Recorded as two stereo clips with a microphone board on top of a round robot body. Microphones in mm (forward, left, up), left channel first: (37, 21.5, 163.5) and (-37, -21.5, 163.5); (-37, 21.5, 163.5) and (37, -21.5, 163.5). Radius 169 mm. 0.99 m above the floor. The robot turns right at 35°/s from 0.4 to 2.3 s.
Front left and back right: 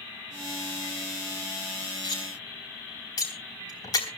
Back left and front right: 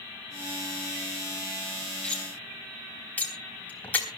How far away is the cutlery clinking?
About 4 m.